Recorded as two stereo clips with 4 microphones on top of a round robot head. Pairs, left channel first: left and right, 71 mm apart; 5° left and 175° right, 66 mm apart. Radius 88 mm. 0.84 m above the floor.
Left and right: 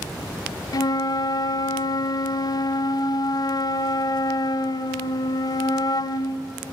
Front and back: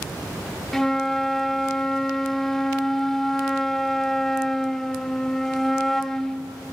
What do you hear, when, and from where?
0.7 s a flute: 95° left, 0.5 m